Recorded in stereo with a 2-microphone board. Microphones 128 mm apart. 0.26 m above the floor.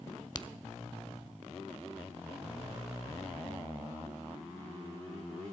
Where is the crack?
35° left (ahead or behind), 0.6 m.